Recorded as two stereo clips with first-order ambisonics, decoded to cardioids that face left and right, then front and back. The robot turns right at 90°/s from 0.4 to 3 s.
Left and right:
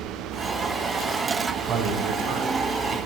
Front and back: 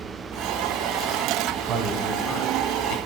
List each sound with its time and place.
1.7 s a man speaking: 140° right, 2 m; by 3.0 s 25° right, 2 m